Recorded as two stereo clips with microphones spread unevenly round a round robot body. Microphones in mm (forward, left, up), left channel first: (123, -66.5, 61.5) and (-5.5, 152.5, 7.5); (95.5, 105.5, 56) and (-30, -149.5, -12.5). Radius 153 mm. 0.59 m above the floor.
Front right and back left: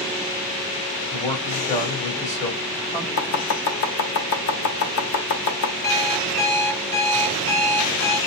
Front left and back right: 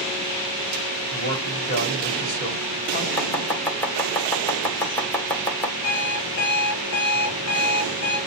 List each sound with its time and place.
1.1 s a man speaking: 5° left, 4 m
3.2 s chopping: 30° right, 1.0 m
5.8 s an alarm clock: 20° left, 2.5 m